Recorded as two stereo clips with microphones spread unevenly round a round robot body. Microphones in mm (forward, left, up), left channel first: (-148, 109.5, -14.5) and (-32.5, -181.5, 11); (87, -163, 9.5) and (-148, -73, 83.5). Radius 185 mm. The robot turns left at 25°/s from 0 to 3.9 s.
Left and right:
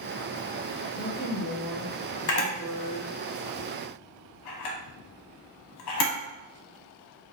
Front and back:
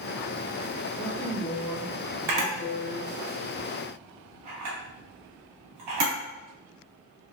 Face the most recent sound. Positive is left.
turn(degrees=115)